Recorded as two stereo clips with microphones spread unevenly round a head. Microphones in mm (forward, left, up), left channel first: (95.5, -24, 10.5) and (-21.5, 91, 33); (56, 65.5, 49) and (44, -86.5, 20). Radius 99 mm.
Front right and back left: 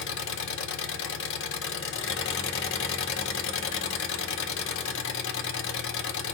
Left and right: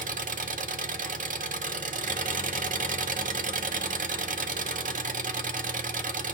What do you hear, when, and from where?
0.0 s an engine running: 55° right, 0.8 m